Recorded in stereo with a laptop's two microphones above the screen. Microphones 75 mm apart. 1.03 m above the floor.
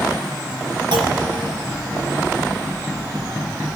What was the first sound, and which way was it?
A clunk, 80° right.